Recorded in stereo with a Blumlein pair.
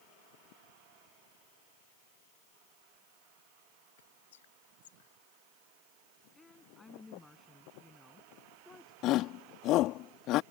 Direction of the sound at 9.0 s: 35° left.